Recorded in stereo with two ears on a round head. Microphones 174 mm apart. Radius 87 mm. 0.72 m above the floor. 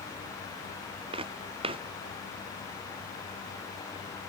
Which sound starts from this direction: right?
Footsteps, at 1.1 s.